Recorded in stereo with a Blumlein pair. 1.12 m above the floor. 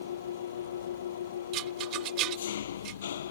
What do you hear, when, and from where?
0.0 s an engine running: 65° left
1.5 s a rattle: 40° right